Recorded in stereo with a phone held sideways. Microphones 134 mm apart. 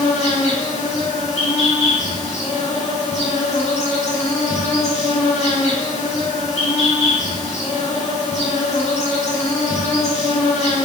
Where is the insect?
50° left (ahead or behind), 2 m.